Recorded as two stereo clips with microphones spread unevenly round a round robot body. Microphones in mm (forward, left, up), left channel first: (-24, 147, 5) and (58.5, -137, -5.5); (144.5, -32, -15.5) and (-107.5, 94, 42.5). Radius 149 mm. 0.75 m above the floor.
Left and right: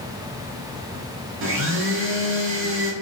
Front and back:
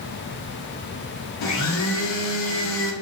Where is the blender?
30° right, 1.2 m.